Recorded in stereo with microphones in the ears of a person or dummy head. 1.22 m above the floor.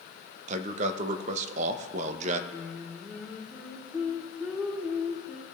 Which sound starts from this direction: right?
A man speaking, at 0.5 s.